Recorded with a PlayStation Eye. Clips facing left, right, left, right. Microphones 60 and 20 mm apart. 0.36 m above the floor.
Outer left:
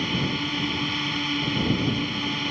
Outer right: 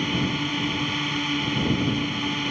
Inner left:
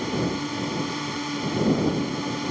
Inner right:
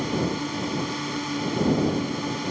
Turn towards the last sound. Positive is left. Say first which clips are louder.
# outer right 1 dB, even
turn(degrees=-5)  # may be behind; listen again after turning